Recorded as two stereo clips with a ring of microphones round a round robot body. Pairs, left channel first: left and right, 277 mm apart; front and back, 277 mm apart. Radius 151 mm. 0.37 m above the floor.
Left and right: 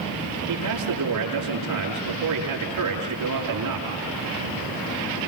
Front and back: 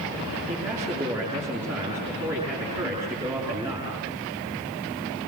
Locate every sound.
0.5 s a man speaking: 95° right, 6.5 m